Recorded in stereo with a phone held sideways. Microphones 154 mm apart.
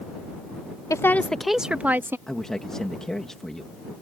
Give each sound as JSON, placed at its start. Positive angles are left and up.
{"t": 0.9, "sound": "a woman speaking", "side_deg": 20}
{"t": 2.3, "sound": "a man speaking", "side_deg": 5}